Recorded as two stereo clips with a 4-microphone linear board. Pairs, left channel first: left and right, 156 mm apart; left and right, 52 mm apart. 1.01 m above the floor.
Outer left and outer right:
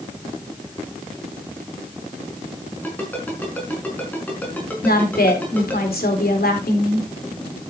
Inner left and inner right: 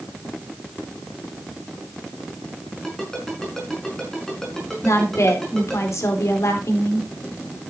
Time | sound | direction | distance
2.8 | a ringtone | 10° left (ahead or behind) | 5.5 m
4.8 | a woman speaking | 80° left | 3.5 m